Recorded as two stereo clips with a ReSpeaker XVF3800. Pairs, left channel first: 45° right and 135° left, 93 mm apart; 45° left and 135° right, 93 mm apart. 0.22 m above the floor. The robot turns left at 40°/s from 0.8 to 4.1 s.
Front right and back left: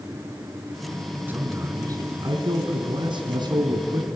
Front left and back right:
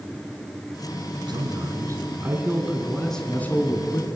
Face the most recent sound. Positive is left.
turn(degrees=90)